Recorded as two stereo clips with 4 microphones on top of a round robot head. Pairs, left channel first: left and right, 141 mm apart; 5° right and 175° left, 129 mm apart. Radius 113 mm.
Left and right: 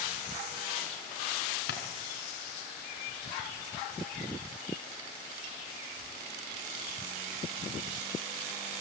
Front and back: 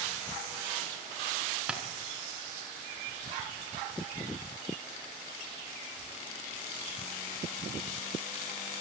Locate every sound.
1.7 s tapping: 90° left, 3.5 m